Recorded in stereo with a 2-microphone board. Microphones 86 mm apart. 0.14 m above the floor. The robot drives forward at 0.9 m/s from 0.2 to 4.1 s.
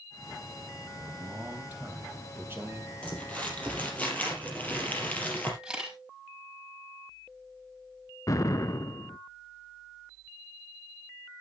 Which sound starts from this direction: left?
An explosion, at 8.3 s.